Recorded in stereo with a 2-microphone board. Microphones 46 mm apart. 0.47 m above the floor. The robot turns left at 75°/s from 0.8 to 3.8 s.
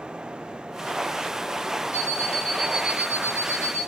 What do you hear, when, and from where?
1.9 s an alarm clock: 60° left, 3.5 m; by 3.9 s 80° right, 3.5 m